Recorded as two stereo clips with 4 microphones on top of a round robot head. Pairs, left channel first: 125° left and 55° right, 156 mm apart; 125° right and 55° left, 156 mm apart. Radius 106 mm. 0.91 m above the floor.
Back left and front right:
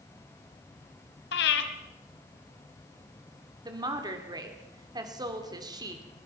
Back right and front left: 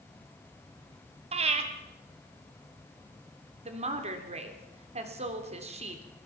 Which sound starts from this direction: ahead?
A woman speaking, at 3.6 s.